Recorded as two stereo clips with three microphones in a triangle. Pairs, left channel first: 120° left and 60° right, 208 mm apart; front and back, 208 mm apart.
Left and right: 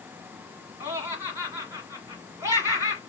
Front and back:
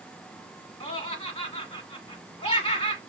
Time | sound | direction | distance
0.8 | laughter | 10° right | 1.2 m